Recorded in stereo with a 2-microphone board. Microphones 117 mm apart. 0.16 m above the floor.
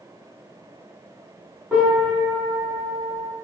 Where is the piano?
10° right (ahead or behind), 1.7 m.